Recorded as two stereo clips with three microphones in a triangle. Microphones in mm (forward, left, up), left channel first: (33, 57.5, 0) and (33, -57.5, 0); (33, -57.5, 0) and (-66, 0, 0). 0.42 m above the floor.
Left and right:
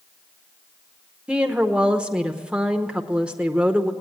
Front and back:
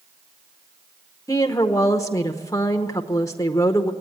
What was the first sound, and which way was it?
A woman speaking, 20° right.